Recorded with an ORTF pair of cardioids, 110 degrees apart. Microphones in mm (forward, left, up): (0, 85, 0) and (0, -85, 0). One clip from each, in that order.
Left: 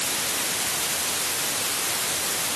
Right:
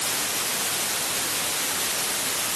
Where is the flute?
No flute in this recording.